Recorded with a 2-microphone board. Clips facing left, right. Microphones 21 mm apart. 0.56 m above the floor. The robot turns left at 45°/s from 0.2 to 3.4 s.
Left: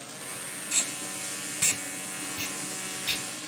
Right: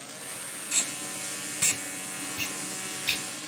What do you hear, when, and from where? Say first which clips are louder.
0.7 s tape being pulled: even; 10° left (ahead or behind), 2.5 m; by 3.2 s 65° right (ahead or behind), 2.5 m